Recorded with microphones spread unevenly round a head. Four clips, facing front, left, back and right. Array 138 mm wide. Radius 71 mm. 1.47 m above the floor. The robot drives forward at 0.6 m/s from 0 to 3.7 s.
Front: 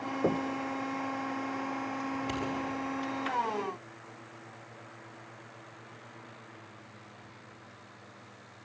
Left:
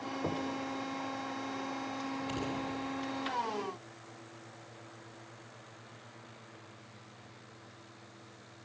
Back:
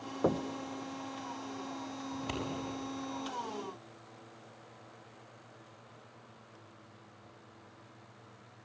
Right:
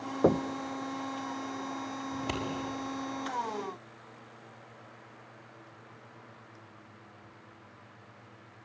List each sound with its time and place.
0.2 s knocking: 80° right, 0.7 m; by 0.5 s 95° right, 0.7 m
2.1 s scissors: 90° right, 6.5 m